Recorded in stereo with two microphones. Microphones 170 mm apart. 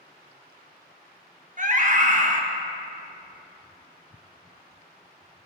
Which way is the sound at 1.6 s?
50° right (ahead or behind).